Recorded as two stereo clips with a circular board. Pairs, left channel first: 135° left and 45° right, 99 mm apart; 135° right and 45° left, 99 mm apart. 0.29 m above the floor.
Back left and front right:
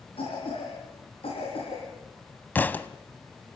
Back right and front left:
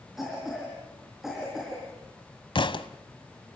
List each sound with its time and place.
0.2 s a cough: 130° left, 5 m
2.5 s a thud: 155° right, 0.9 m